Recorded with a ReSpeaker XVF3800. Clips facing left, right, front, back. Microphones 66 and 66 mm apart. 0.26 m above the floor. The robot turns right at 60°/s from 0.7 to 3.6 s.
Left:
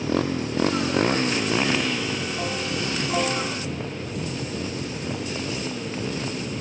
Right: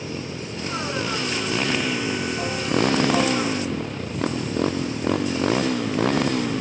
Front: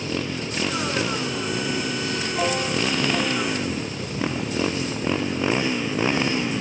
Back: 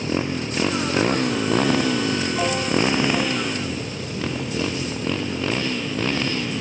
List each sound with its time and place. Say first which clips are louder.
0.0 s a motorcycle: left 7 dB, back 3 dB; 115° left; by 6.6 s 70° right